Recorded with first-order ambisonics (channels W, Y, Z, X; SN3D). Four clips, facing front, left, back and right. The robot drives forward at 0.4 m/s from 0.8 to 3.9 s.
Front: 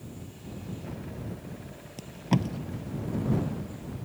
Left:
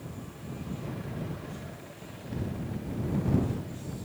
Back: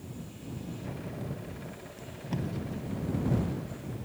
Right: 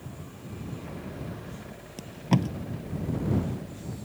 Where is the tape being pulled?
55° right.